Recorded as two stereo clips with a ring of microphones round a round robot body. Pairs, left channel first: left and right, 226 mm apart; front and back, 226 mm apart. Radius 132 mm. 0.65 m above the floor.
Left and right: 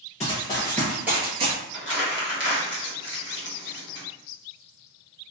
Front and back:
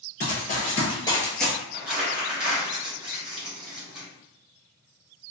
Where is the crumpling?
95° left, 1.0 m.